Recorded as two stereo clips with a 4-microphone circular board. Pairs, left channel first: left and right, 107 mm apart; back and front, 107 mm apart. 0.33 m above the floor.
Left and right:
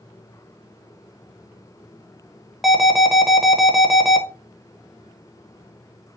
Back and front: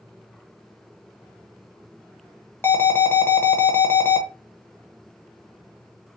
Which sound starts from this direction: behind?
An alarm, at 2.6 s.